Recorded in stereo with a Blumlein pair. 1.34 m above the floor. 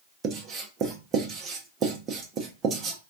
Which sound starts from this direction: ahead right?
Writing, at 0.2 s.